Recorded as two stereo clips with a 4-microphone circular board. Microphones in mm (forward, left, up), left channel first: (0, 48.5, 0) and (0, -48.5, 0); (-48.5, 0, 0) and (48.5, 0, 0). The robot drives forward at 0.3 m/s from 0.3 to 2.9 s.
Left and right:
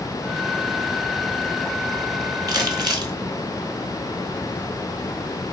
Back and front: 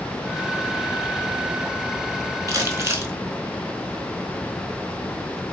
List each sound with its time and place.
2.5 s crumpling: 50° right, 1.0 m; by 3.1 s 55° right, 1.0 m